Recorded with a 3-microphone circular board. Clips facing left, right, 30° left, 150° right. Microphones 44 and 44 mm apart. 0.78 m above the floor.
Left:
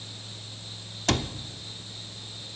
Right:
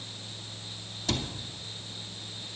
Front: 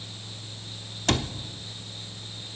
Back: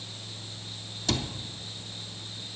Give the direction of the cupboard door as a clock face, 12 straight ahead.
10 o'clock.